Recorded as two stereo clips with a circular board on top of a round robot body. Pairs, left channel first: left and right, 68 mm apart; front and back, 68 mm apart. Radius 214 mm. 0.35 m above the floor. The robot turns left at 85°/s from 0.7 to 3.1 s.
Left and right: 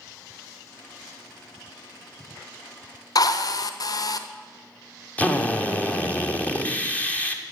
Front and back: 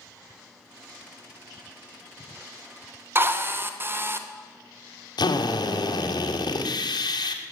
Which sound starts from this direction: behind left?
A drill, at 3.1 s.